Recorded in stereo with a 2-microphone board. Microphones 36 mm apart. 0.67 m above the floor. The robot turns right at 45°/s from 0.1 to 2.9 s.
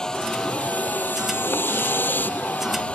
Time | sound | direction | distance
0.0 | a vehicle | 15° left | ?